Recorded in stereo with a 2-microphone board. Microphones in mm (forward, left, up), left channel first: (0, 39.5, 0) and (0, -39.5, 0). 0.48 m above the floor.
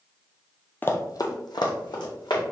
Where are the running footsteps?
25° left (ahead or behind), 0.6 m; by 2.4 s 75° left (ahead or behind), 1.8 m.